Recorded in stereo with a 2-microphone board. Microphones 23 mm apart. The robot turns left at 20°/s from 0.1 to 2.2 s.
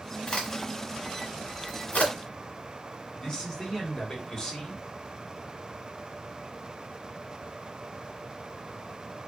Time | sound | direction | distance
0.3 | a crack | 40° left (ahead or behind) | 1.7 m
3.2 | a man speaking | 35° left (ahead or behind) | 1.5 m